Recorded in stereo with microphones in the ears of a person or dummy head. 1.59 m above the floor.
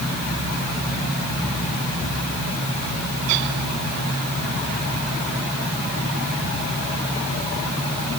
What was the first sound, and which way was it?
Only background noise.